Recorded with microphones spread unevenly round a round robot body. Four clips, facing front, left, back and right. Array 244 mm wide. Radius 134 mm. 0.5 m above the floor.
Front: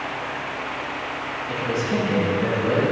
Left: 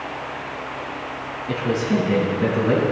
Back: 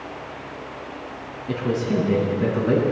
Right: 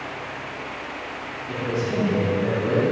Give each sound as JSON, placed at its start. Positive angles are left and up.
{"t": 1.5, "sound": "a man speaking", "azimuth_deg": 155, "distance_m": 4.5}